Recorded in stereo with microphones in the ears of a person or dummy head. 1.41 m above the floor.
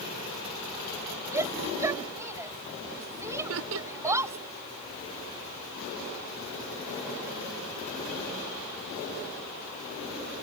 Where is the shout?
15° right (ahead or behind).